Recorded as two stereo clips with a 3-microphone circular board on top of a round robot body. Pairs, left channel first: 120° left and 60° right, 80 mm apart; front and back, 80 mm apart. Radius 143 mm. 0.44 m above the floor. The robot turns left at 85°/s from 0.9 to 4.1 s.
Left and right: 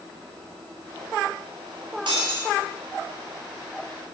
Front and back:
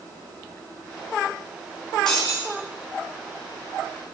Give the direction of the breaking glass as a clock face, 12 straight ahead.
3 o'clock.